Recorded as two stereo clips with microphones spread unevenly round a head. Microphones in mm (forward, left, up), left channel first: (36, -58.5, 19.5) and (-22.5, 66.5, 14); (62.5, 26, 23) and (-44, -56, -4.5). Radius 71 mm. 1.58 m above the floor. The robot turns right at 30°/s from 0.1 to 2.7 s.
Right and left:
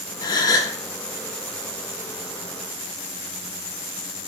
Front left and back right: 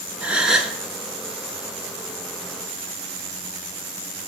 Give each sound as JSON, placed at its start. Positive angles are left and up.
{"t": 0.2, "sound": "a gasp", "azimuth_deg": -50, "distance_m": 0.9}